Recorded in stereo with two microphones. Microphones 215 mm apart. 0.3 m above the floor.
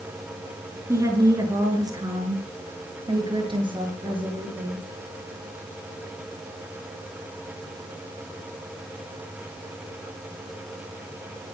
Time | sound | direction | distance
0.9 | a woman speaking | 15° right (ahead or behind) | 5 m